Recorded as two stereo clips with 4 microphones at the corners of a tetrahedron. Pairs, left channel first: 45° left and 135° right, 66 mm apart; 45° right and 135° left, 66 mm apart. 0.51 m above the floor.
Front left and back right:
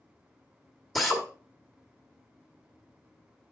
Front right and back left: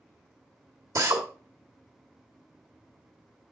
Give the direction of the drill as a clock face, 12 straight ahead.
8 o'clock.